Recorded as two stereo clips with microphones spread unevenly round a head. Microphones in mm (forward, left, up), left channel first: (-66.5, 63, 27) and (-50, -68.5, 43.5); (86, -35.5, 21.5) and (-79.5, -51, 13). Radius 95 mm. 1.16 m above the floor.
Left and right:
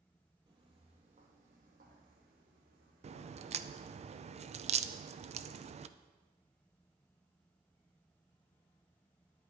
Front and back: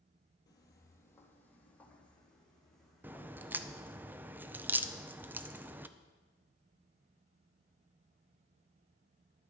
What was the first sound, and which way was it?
Footsteps, 45° right.